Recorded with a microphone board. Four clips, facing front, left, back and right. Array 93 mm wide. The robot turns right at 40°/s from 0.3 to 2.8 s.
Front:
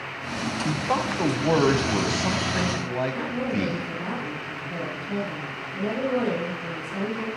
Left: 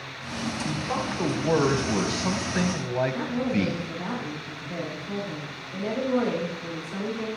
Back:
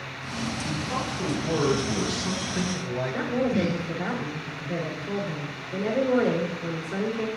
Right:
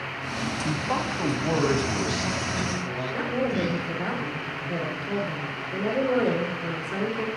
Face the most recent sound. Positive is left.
turn(degrees=-125)